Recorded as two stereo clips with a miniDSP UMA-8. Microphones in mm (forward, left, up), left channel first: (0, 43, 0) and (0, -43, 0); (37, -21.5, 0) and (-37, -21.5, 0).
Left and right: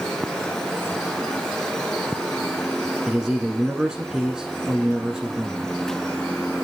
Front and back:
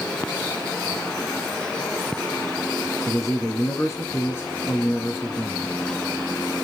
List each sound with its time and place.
3.1 s a man speaking: 10° right, 1.6 m